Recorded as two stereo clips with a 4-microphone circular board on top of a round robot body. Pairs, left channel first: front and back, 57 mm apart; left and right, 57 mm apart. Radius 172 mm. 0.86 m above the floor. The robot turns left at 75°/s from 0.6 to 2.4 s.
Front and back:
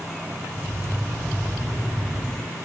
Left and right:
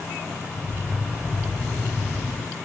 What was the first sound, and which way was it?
Only background noise.